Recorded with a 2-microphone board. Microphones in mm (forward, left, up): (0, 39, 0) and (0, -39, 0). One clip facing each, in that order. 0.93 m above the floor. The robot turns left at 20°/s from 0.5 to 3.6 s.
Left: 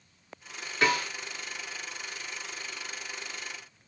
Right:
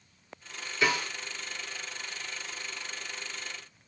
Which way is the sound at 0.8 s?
55° left (ahead or behind).